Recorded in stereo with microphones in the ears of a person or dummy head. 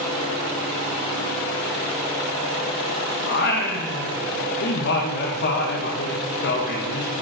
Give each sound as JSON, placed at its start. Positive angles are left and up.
{"t": 3.3, "sound": "singing", "side_deg": 55, "distance_m": 2.0}